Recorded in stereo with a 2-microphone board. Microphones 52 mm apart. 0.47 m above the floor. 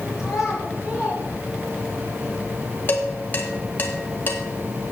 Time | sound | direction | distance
0.2 | a child speaking | 5° right (ahead or behind) | 3.5 m
2.9 | dishes clattering | 40° left (ahead or behind) | 1.8 m